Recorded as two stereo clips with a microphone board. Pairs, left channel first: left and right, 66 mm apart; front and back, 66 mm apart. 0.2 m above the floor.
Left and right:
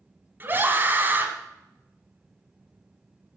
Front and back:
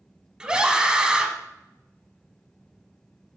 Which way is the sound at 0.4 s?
110° right.